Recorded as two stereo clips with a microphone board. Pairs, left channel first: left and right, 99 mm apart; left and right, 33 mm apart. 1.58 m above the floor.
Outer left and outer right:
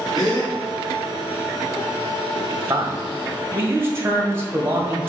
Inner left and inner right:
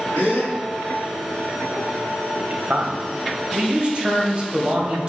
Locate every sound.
0.1 s a gasp: 40° left (ahead or behind), 2.5 m
2.4 s a man speaking: 25° right (ahead or behind), 1.4 m